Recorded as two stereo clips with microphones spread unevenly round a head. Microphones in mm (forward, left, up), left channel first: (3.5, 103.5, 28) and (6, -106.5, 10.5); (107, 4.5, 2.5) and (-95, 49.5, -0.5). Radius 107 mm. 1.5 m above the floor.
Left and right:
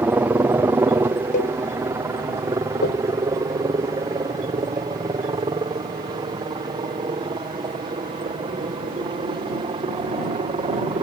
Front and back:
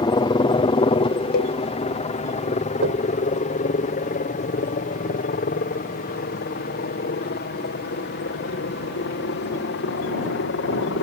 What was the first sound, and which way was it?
A helicopter, 30° right.